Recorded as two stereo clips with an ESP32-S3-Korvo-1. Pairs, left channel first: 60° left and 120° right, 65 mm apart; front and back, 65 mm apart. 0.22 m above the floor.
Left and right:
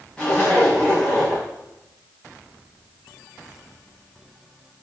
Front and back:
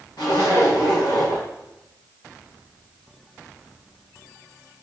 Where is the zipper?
20° right, 8 m.